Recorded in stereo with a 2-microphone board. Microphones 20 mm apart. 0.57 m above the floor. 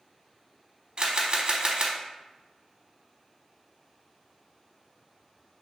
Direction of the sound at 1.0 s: 45° right (ahead or behind).